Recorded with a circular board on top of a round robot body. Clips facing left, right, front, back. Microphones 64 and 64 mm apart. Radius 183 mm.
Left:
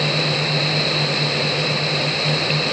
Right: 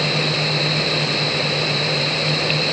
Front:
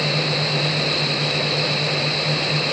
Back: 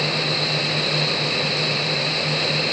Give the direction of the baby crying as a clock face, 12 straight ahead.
No baby crying in this recording.